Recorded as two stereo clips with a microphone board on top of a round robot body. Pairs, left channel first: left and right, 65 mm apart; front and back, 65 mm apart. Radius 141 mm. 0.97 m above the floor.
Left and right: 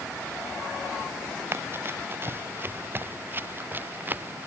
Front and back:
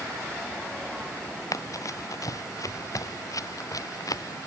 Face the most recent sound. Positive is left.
turn(degrees=-30)